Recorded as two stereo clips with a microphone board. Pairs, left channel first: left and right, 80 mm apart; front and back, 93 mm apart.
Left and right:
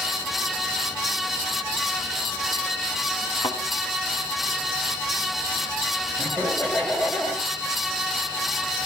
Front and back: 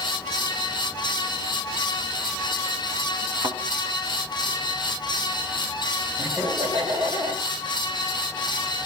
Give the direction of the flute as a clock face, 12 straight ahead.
I don't hear a flute.